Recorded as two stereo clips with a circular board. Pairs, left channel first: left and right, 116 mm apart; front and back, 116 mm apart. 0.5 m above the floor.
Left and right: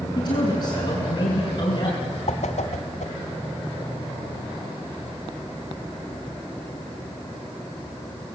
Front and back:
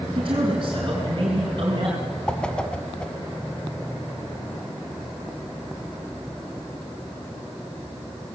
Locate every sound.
0.1 s a man speaking: 135° left, 4.5 m
2.3 s a whoosh: 80° left, 1.3 m